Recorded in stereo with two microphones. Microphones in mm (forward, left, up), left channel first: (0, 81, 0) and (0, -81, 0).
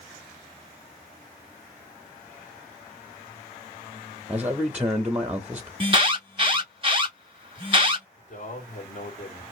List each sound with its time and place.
4.3 s a man speaking: 10° right (ahead or behind), 0.9 m
5.8 s an alarm: 30° right (ahead or behind), 1.0 m
8.2 s a man speaking: 50° left (ahead or behind), 2.5 m